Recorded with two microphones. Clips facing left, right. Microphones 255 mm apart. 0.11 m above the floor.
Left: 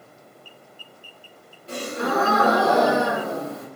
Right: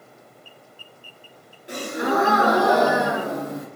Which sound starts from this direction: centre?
A gasp, at 1.7 s.